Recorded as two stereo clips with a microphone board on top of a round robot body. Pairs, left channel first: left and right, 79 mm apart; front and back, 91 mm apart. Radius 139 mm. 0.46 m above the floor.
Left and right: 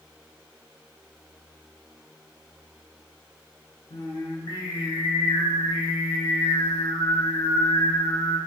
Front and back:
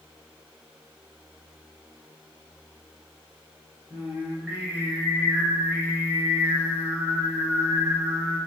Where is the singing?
100° left, 1.1 m.